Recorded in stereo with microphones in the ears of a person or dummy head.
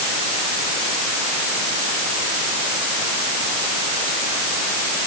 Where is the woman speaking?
I don't hear a woman speaking.